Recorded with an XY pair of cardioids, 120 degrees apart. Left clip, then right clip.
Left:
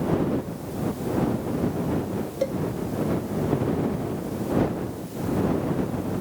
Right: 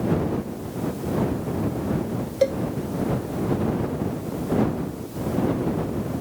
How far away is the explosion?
No explosion in this recording.